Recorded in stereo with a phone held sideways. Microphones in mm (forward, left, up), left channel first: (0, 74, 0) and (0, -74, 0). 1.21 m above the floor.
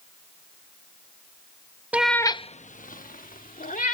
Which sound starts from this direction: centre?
A cat meowing, at 1.9 s.